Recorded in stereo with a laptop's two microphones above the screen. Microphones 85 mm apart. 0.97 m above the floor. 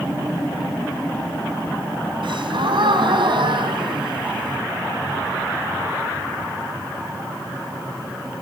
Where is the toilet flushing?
No toilet flushing in this recording.